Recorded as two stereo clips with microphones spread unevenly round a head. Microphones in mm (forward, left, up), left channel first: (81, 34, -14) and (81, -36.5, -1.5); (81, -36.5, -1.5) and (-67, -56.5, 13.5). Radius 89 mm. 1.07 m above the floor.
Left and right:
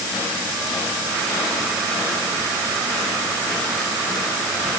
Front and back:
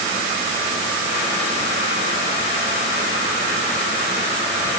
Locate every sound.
Only background noise.